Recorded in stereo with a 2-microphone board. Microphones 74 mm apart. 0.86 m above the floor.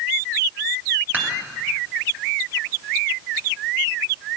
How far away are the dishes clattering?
About 3 m.